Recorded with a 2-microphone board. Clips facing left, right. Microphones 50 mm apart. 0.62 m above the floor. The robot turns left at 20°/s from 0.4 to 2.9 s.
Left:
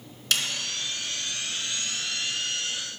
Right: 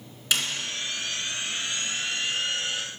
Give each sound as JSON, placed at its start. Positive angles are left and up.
{"t": 0.3, "sound": "a snare drum", "side_deg": -15, "distance_m": 2.0}